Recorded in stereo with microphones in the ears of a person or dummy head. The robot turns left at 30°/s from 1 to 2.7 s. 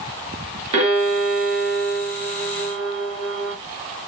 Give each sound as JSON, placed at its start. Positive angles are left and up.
{"t": 0.7, "sound": "a violin", "azimuth_deg": -35, "distance_m": 3.5}